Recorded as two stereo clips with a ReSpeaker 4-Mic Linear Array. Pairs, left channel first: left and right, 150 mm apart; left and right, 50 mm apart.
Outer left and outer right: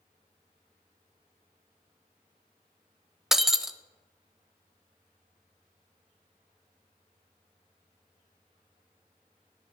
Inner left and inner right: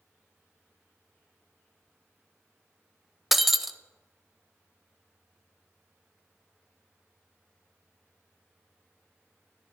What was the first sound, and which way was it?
Breaking glass, 5° right (ahead or behind).